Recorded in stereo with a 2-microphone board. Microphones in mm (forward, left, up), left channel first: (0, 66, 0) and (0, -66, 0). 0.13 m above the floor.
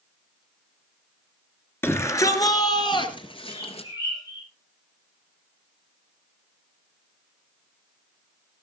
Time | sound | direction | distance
1.8 | a shout | 15° left (ahead or behind) | 2.0 m
3.5 | a bird | 35° left (ahead or behind) | 7.5 m